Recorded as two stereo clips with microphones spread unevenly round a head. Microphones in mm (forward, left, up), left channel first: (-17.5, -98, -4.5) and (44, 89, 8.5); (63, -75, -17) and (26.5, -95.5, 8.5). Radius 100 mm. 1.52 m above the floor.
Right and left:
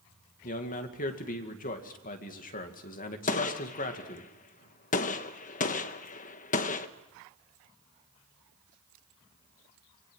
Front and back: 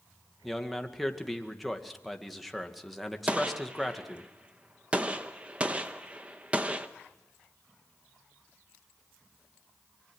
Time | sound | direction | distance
0.4 | a man speaking | 60° right | 2 m
3.3 | a gunshot | 155° right | 0.9 m